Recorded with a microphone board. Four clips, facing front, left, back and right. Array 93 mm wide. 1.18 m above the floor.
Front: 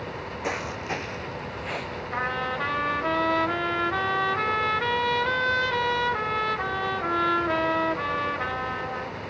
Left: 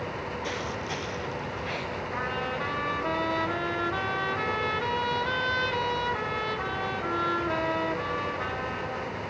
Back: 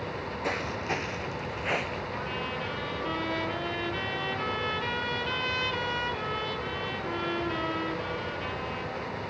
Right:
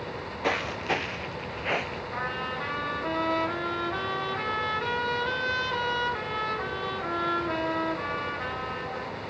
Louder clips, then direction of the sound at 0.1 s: Right 3 dB, front 2 dB; 70° right.